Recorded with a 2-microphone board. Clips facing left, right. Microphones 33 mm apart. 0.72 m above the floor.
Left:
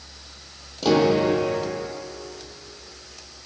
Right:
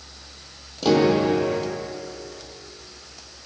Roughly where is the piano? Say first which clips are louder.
Even; centre.